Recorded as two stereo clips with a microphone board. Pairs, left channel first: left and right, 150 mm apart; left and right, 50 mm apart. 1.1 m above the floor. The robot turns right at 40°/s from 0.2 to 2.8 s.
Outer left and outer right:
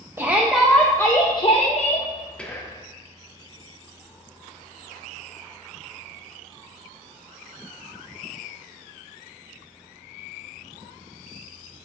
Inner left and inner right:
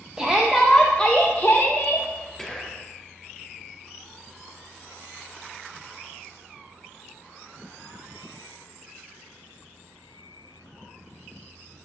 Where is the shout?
15° right, 0.7 m; by 2.1 s 60° left, 0.7 m.